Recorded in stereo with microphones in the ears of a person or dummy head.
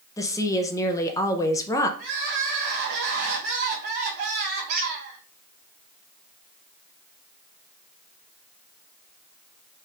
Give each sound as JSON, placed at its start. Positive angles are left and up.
{"t": 0.2, "sound": "a woman speaking", "side_deg": 15, "distance_m": 0.5}
{"t": 2.0, "sound": "crying", "side_deg": -55, "distance_m": 1.4}
{"t": 4.7, "sound": "a squeak", "side_deg": -50, "distance_m": 1.1}